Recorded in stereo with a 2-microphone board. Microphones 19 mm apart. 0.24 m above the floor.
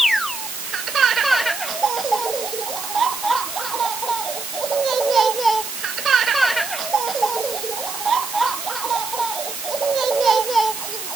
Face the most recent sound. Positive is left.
No sound to turn to.